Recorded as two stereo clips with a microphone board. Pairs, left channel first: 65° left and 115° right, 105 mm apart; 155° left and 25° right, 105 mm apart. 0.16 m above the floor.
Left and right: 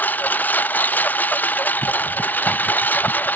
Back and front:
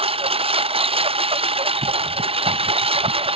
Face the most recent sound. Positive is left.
turn(degrees=-5)